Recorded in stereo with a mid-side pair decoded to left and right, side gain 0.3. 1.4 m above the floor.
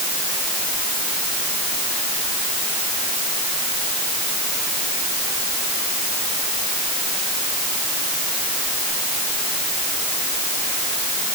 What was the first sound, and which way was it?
Only background noise.